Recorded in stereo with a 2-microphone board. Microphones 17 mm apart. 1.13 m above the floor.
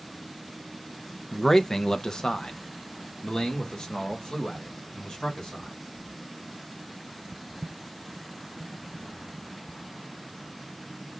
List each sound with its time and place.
1.3 s a man speaking: 20° left (ahead or behind), 0.6 m; by 5.8 s 80° left, 3 m